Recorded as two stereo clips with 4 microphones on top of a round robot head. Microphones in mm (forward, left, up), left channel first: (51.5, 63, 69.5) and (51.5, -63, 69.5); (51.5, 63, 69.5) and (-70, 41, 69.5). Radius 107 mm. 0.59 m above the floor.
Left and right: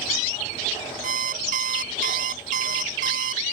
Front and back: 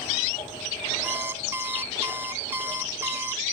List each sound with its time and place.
1.0 s an alarm clock: 95° right